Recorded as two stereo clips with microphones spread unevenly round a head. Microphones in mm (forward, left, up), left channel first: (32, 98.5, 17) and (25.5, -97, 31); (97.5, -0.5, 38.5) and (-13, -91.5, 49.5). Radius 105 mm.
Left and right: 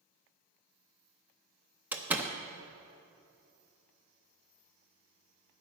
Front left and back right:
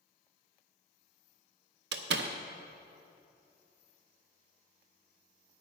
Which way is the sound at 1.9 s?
175° right.